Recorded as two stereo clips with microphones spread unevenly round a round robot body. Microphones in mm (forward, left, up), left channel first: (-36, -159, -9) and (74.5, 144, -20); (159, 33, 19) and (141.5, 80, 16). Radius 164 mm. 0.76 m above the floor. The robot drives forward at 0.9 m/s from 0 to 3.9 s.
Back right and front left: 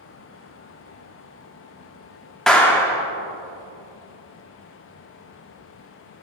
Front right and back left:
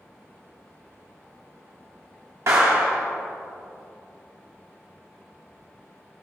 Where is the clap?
160° left, 0.7 m; by 3.0 s 170° left, 1.2 m.